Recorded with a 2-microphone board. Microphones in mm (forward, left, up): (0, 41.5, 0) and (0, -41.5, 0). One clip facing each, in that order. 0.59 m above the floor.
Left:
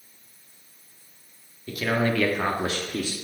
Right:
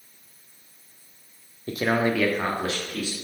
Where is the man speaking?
40° right (ahead or behind), 0.9 m; by 3.1 s 45° left (ahead or behind), 1.1 m.